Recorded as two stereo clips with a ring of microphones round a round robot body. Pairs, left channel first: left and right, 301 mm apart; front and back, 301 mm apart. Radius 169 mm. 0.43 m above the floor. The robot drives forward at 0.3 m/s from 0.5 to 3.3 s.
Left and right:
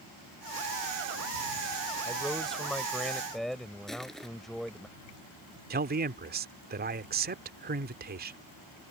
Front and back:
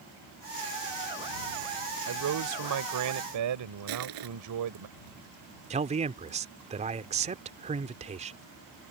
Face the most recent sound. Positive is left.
turn(degrees=-125)